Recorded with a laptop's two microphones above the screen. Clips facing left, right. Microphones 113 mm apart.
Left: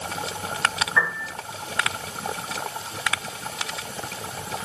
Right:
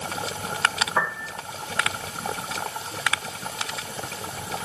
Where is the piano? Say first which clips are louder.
Even; 45° right (ahead or behind), 2.5 m.